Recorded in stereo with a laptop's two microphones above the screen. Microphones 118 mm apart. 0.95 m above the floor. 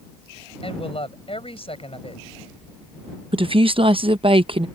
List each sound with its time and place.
0.6 s a woman speaking: 55° left (ahead or behind)
3.3 s a woman speaking: 50° right (ahead or behind)